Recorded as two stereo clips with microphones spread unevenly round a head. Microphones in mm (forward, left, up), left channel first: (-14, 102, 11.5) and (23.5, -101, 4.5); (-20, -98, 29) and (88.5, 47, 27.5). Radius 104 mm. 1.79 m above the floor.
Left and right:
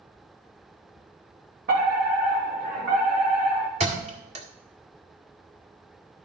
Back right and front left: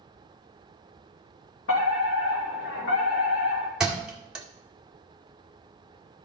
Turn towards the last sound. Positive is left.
turn(degrees=-30)